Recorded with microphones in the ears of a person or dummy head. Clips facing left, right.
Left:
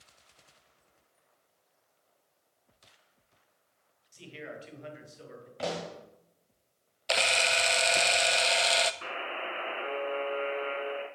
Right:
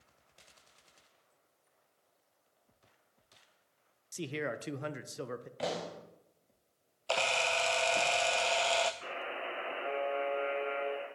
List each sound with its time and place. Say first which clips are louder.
4.1 s a man speaking: right 7 dB; 70° right (ahead or behind), 0.8 m
5.6 s a pop: left 3 dB; centre (ahead or behind), 1.2 m
7.1 s a camera shutter: left 2 dB; 25° left (ahead or behind), 0.6 m
9.0 s a buzzer: left 2 dB; 65° left (ahead or behind), 3 m